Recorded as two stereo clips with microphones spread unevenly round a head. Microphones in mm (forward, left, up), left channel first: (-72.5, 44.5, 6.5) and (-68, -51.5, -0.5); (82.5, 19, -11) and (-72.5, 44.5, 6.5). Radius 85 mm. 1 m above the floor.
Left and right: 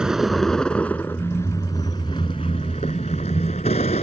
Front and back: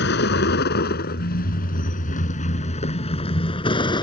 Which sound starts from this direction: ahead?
A vehicle, at 0.0 s.